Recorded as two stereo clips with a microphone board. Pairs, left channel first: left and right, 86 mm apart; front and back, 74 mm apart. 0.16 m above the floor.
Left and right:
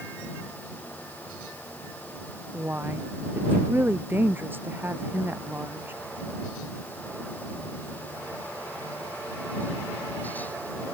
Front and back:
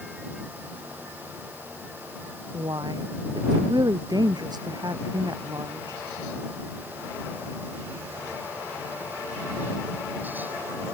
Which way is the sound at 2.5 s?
155° right.